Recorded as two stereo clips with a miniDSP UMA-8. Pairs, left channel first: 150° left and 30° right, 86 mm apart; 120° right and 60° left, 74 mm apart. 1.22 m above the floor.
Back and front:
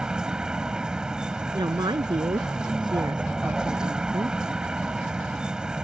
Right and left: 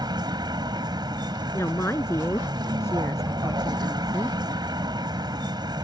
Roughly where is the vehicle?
Ahead left.